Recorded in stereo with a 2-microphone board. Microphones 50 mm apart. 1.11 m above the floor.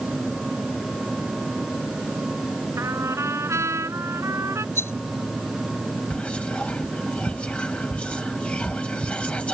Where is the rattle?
65° left (ahead or behind).